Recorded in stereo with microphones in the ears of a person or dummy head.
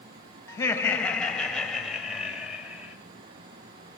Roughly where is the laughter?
Centre.